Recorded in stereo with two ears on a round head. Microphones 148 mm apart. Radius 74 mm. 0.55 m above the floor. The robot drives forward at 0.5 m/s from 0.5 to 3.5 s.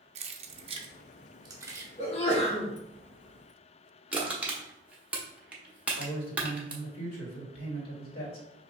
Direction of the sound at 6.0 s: 60° left (ahead or behind).